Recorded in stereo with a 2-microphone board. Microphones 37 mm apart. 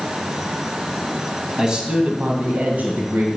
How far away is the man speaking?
About 1.3 m.